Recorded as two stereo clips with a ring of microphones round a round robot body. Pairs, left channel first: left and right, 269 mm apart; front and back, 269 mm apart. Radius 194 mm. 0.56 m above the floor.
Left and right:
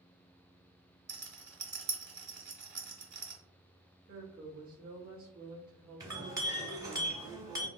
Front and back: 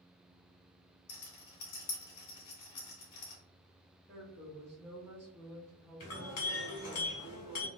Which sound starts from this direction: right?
A woman speaking, at 4.1 s.